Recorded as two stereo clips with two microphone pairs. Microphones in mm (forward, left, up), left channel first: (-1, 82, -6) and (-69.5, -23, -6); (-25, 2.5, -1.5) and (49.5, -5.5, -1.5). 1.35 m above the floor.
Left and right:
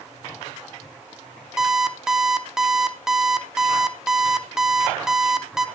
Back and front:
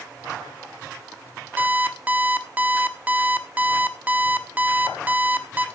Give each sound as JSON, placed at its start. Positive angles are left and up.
{"t": 1.6, "sound": "an alarm clock", "azimuth_deg": -45, "distance_m": 0.9}